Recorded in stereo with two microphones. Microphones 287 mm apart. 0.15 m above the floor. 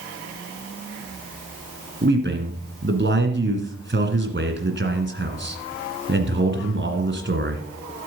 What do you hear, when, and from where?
2.0 s a man speaking: 40° right (ahead or behind), 1.9 m